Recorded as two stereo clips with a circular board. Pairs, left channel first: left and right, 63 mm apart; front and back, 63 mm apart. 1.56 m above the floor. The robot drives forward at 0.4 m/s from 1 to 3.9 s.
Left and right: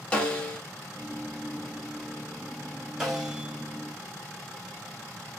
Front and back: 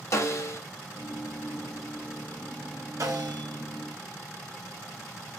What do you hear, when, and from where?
0.1 s a snare drum: 20° left, 1.3 m
3.0 s a snare drum: 175° right, 3 m